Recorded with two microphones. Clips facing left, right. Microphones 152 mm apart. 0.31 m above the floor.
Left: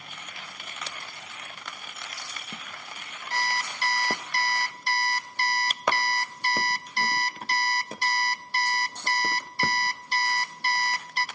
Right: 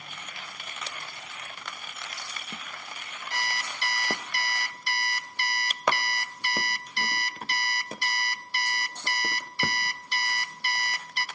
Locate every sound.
3.3 s an alarm clock: 40° left (ahead or behind), 0.7 m